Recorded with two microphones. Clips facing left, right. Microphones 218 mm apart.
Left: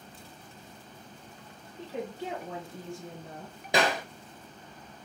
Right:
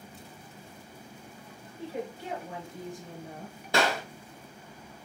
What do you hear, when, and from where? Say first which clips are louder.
1.8 s a woman speaking: even; 20° left (ahead or behind), 2 m; by 3.6 s 5° right (ahead or behind), 1.6 m
3.7 s a clap: even; 15° left (ahead or behind), 1.7 m